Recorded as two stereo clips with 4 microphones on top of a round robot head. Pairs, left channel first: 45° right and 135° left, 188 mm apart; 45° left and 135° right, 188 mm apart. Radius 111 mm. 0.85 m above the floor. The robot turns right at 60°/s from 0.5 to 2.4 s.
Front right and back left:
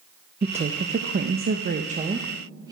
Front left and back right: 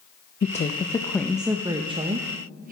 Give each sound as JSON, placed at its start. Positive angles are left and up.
{"t": 0.4, "sound": "a woman speaking", "azimuth_deg": 85, "distance_m": 0.5}